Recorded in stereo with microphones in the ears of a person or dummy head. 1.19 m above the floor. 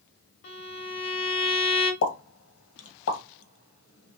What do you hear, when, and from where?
0.4 s a violin: 50° left (ahead or behind), 1.0 m
2.0 s a pop: 75° left (ahead or behind), 1.2 m